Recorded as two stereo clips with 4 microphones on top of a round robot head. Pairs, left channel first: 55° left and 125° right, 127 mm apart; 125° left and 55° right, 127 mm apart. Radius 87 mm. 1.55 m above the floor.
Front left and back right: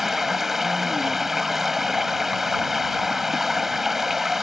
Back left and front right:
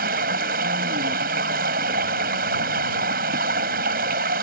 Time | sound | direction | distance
0.0 | running water | 40° right | ?